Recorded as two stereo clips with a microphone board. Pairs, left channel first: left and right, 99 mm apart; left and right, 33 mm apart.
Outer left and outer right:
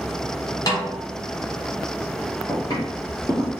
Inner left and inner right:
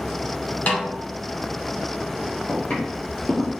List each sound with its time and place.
0.7 s a snare drum: 40° left (ahead or behind), 1.8 m
2.5 s footsteps: 45° left (ahead or behind), 2 m; by 3.6 s 25° left (ahead or behind), 1.8 m